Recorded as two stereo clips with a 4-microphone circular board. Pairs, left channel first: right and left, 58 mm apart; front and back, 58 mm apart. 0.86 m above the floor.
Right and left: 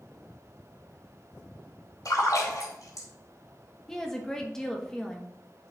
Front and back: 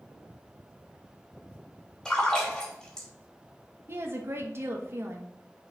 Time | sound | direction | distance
2.0 | a splash | 80° right | 3 m
3.9 | a woman speaking | 170° right | 1.2 m